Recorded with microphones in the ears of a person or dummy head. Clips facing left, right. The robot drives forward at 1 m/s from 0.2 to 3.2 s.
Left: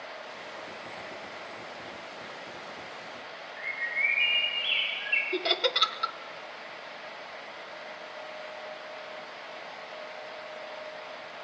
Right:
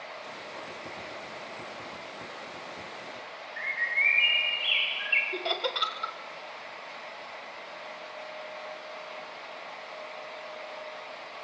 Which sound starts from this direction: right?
A bird, at 3.6 s.